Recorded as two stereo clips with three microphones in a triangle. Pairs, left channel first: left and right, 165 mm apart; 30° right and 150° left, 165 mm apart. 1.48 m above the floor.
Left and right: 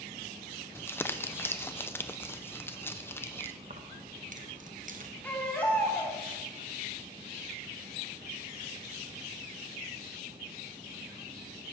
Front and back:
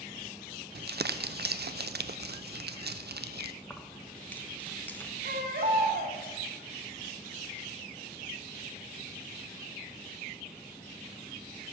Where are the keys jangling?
110° right, 0.8 m.